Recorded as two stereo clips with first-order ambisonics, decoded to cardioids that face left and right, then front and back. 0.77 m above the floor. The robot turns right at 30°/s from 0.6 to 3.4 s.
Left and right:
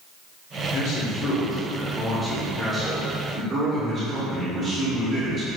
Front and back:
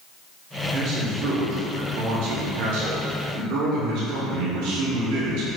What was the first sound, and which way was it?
A man speaking, 125° left.